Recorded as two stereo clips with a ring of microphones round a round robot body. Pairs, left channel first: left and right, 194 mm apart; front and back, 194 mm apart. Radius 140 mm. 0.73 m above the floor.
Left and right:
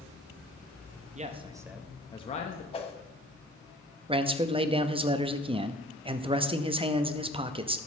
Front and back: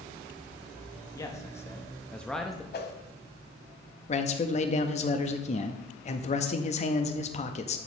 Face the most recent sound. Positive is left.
turn(degrees=-40)